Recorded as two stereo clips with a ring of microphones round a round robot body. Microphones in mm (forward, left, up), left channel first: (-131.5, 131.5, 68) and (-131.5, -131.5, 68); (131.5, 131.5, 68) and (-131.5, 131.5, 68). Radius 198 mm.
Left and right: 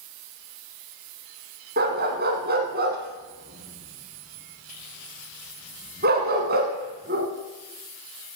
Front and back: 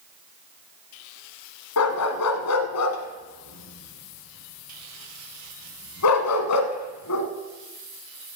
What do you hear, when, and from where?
1.8 s a dog barking: 30° right, 1.3 m